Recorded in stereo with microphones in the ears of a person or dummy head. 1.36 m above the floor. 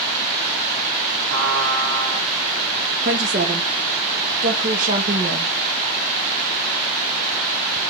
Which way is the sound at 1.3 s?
80° right.